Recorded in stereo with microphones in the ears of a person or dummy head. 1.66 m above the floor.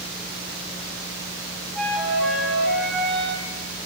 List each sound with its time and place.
1.7 s a flute: 5° left (ahead or behind), 5.5 m